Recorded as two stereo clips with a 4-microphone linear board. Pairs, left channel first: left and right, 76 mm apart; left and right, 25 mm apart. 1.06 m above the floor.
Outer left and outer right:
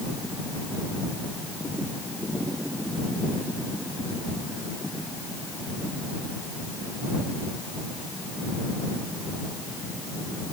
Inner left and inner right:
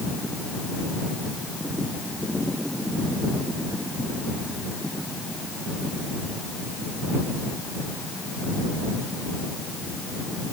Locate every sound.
Only background noise.